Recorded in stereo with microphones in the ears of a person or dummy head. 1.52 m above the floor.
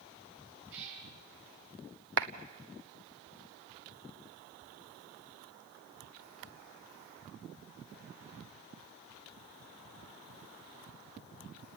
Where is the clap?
70° right (ahead or behind), 1.4 m.